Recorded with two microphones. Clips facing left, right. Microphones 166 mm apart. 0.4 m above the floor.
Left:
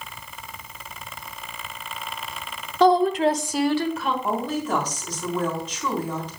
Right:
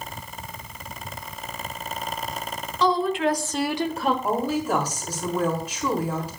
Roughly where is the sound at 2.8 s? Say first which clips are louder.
Left 5 dB; left.